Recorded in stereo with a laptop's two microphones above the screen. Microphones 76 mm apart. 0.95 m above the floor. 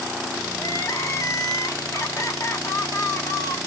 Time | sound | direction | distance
0.6 | crying | 45° left (ahead or behind) | 0.9 m